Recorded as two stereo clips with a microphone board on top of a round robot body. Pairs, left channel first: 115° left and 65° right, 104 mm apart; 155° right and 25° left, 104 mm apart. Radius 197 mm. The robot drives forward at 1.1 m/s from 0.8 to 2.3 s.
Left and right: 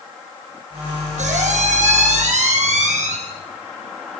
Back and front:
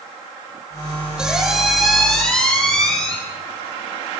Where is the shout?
No shout in this recording.